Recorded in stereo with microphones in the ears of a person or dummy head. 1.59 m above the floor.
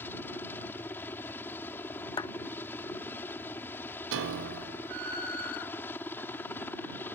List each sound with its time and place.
0.0 s a helicopter: 10° left (ahead or behind)
2.2 s a clap: 25° left (ahead or behind)
4.1 s a piano: 70° right (ahead or behind)